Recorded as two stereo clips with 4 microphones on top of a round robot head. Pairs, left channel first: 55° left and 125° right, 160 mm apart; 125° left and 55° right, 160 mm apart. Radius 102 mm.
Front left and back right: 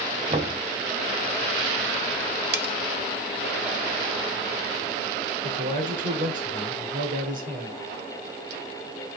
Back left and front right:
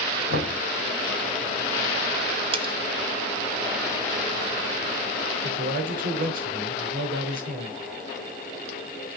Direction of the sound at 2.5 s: 110° right.